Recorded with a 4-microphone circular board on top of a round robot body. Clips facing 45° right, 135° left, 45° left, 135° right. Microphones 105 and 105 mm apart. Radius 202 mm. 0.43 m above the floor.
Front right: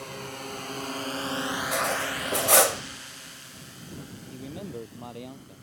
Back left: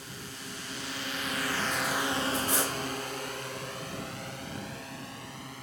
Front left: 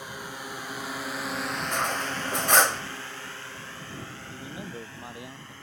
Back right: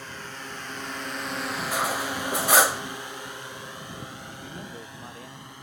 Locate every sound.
0.0 s a drone: 35° right; by 5.6 s 150° left
1.7 s cutlery clinking: 55° right
4.3 s a man speaking: 35° right